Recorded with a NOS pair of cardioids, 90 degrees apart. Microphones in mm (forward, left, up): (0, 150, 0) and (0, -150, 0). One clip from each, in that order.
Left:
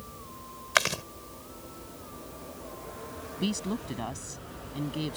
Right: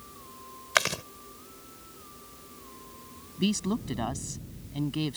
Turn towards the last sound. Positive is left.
turn(degrees=-30)